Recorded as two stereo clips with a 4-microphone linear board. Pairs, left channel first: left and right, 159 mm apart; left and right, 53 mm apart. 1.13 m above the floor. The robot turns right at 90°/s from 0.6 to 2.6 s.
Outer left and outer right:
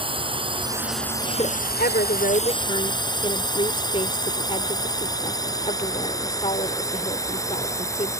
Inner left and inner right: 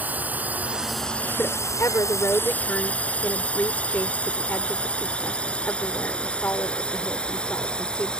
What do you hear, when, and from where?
0.0 s a drone: 35° right (ahead or behind); by 8.2 s 20° left (ahead or behind)
1.4 s a woman speaking: 35° left; by 8.1 s 145° left